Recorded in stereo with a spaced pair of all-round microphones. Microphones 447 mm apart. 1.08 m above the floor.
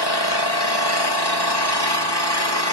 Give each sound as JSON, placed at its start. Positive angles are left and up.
{"t": 0.0, "sound": "an engine running", "side_deg": 60, "distance_m": 1.5}